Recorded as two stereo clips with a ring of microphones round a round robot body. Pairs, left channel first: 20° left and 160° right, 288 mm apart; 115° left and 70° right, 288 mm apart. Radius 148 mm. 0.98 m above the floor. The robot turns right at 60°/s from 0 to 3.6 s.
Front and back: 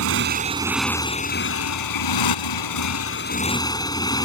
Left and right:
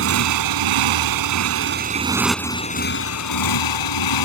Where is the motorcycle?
115° right; by 4.2 s 100° left.